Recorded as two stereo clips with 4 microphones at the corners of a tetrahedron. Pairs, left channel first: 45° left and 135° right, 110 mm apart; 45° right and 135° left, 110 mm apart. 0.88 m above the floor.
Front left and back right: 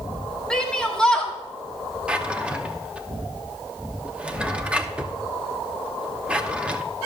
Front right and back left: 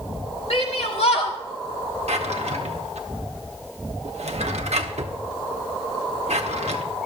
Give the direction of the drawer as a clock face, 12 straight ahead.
7 o'clock.